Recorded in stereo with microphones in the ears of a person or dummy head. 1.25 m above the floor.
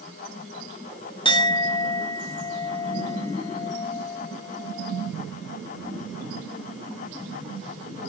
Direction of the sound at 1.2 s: 30° left (ahead or behind).